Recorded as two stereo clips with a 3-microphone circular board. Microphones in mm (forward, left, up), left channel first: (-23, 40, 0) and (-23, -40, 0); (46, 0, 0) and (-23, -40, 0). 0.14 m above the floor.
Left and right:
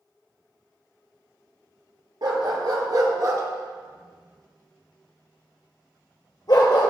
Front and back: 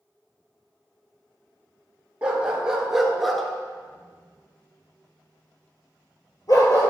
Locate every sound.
2.2 s a dog barking: 75° right, 1.3 m; by 6.9 s 70° left, 1.6 m